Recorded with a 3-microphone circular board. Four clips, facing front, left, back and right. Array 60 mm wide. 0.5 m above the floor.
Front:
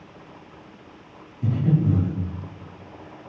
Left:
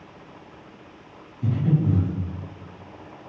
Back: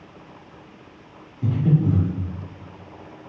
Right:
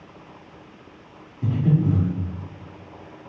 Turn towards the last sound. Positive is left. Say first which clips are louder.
# right 2 dB, back 1 dB
turn(degrees=-135)